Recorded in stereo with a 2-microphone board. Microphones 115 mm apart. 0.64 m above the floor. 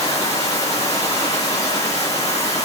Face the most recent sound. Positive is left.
turn(degrees=80)